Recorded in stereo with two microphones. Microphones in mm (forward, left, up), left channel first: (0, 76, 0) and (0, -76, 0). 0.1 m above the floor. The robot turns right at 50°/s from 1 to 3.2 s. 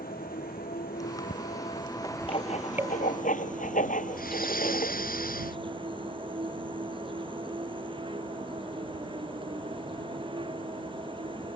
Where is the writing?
45° left; by 5.0 s 90° left.